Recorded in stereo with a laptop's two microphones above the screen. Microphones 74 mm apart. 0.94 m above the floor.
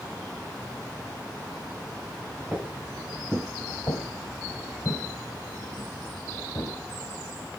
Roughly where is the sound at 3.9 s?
Left.